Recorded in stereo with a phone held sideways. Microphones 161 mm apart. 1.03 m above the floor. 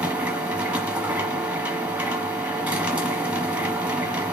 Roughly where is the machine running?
Centre.